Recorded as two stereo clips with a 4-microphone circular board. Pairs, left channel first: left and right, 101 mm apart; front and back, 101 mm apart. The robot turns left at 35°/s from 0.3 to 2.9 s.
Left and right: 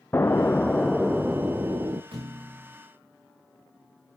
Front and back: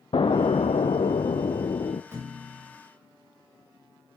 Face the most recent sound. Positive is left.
turn(degrees=-140)